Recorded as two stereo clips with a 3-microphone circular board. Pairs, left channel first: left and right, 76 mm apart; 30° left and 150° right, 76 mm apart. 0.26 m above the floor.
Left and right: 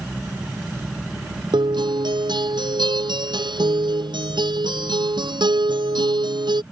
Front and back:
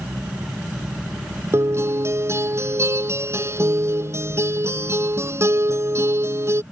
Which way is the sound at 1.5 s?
95° right.